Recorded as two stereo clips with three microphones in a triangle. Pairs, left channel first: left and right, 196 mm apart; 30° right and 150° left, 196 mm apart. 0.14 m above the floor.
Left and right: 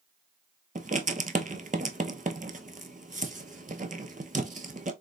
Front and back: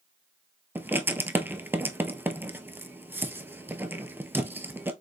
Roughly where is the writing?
Behind right.